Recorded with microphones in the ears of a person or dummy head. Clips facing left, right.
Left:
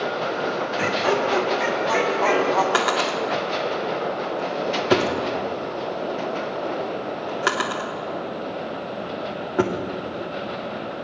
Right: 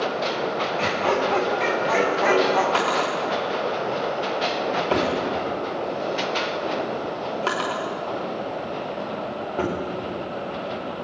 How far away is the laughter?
About 2.5 m.